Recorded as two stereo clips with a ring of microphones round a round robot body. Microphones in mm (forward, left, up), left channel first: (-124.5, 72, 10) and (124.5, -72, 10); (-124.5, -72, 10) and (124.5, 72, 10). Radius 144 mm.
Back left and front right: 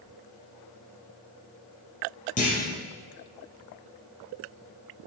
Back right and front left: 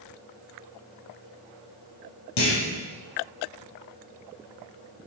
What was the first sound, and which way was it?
A clunk, 145° right.